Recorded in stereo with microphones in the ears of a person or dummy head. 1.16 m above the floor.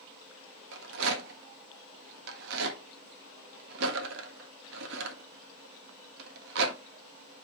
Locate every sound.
0.7 s a rattle: 70° right (ahead or behind), 1.5 m